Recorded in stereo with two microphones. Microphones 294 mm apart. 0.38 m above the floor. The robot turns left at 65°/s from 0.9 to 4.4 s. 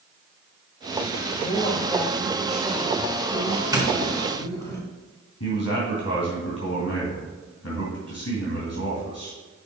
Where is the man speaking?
55° left (ahead or behind), 2.5 m.